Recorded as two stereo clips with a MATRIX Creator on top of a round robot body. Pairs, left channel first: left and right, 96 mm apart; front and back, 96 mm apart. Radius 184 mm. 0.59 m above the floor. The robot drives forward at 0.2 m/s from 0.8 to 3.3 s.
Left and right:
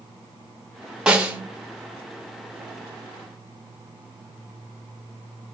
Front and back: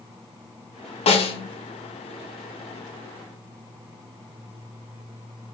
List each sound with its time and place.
1.1 s a snare drum: 10° right, 0.6 m